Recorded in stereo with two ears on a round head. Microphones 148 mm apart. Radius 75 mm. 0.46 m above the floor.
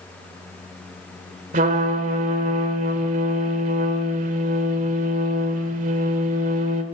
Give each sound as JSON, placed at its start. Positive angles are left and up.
{"t": 1.5, "sound": "a trumpet", "side_deg": -50, "distance_m": 2.0}